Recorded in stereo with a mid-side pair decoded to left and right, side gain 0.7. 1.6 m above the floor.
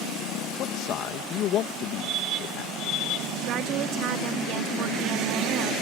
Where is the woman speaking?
55° right.